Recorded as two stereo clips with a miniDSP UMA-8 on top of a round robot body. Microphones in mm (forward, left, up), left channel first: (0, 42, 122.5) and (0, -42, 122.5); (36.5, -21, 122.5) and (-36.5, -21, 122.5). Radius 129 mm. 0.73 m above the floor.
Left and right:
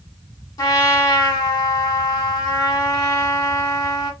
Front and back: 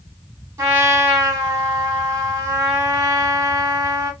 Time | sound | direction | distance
0.6 | a trumpet | 135° left | 1.0 m